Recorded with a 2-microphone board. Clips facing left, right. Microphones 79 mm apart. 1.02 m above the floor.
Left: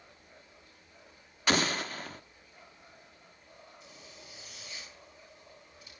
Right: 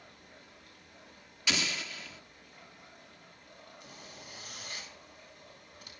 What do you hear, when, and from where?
0.0 s running water: 70° right (ahead or behind), 8.5 m
1.5 s an explosion: 45° left (ahead or behind), 0.7 m
3.8 s a zipper: 65° right (ahead or behind), 6.5 m